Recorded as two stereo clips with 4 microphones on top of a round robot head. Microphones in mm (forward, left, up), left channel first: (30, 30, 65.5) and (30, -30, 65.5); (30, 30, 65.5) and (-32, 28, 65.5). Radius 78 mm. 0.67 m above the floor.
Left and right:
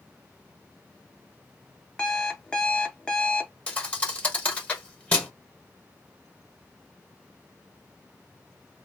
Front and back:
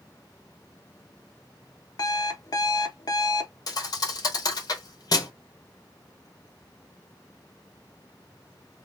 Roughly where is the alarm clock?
Ahead.